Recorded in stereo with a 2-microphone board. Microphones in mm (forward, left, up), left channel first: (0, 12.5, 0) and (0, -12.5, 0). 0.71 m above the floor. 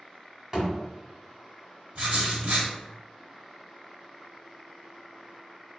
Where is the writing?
60° right (ahead or behind), 1.5 m.